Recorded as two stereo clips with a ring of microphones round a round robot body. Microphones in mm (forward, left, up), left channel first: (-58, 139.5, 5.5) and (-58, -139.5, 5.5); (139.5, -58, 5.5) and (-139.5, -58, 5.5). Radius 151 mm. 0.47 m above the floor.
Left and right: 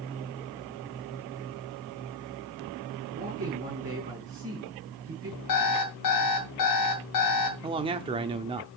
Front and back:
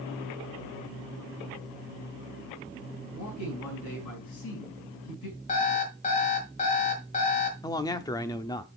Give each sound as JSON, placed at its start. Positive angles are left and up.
{"t": 3.1, "sound": "a man speaking", "azimuth_deg": -25, "distance_m": 5.0}
{"t": 5.5, "sound": "an alarm clock", "azimuth_deg": 65, "distance_m": 1.9}
{"t": 7.6, "sound": "a man speaking", "azimuth_deg": -55, "distance_m": 0.7}